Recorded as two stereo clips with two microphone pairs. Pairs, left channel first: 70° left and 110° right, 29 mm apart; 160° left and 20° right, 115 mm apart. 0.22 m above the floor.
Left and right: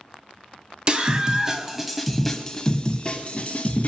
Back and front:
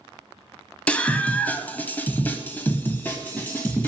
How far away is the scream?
About 1.5 m.